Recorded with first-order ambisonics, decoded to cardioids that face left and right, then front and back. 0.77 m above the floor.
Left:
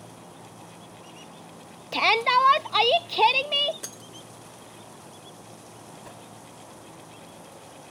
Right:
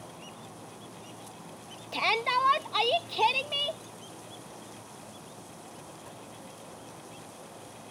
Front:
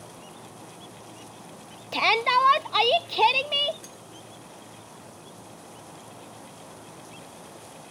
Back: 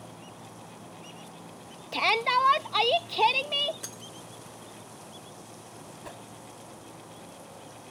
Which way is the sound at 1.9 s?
70° left.